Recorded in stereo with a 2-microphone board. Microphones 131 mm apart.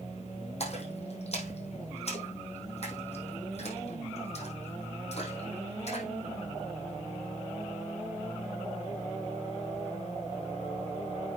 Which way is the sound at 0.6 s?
55° left (ahead or behind).